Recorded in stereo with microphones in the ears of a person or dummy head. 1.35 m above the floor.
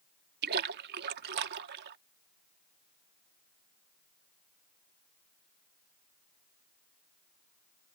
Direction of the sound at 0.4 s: 55° right (ahead or behind).